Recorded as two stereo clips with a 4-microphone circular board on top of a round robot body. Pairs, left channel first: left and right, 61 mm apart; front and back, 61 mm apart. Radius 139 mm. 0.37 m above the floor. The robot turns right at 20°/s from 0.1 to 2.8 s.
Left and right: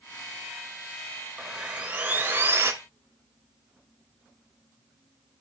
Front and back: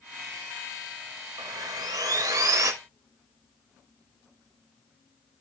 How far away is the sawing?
About 1.6 m.